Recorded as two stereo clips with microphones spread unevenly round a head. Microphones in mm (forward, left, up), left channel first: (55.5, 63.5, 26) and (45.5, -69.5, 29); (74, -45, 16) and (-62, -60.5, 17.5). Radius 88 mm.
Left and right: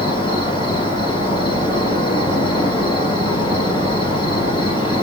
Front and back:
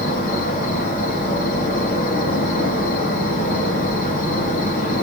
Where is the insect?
35° left, 2.5 m.